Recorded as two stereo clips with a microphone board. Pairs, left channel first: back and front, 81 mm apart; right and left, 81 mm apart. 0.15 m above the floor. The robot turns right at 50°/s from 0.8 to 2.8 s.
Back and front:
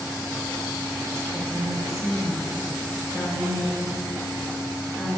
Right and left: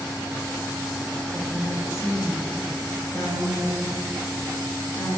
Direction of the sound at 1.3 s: 170° right.